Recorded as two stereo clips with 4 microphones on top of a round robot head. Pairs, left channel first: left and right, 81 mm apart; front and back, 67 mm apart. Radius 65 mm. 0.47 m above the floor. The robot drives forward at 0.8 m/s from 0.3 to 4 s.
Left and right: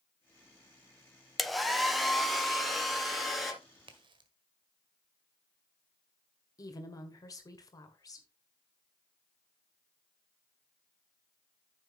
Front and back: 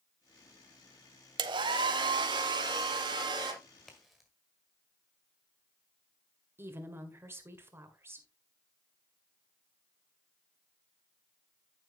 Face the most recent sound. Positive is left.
turn(degrees=130)